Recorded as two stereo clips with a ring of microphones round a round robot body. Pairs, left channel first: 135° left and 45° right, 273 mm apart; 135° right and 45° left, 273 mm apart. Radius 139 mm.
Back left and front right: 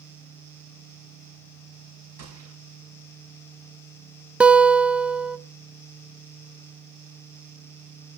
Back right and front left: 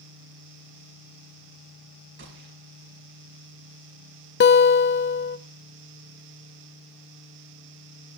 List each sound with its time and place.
2.2 s a gunshot: 5° right, 6 m
4.4 s a guitar: 130° right, 0.6 m